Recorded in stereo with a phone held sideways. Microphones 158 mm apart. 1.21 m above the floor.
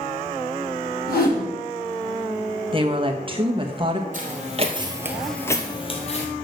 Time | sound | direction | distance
1.1 | a whoosh | 80° left | 5.5 m
2.7 | a woman speaking | 35° right (ahead or behind) | 1.4 m
4.1 | footsteps | 55° right (ahead or behind) | 2 m